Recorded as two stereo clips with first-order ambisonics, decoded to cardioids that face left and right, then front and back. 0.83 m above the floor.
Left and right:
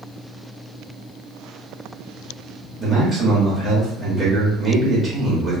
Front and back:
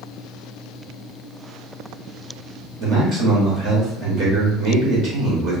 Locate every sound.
2.8 s a man speaking: 170° right, 1.1 m